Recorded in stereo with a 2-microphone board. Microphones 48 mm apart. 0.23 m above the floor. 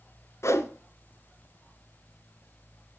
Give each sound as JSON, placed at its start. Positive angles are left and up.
{"t": 0.4, "sound": "a whoosh", "side_deg": 80, "distance_m": 0.9}